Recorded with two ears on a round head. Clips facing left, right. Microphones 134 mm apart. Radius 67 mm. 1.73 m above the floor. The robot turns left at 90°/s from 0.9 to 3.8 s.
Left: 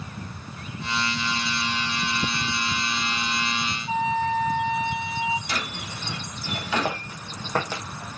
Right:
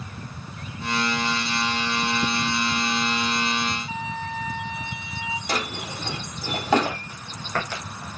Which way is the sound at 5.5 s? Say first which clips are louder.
Right 4 dB; 35° right (ahead or behind).